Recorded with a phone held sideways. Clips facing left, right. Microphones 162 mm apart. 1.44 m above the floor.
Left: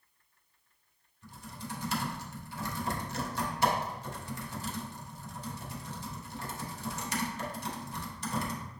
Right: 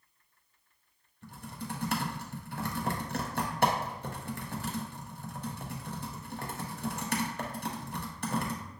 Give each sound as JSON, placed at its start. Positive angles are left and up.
{"t": 1.2, "sound": "typing on a keyboard", "side_deg": -60, "distance_m": 0.5}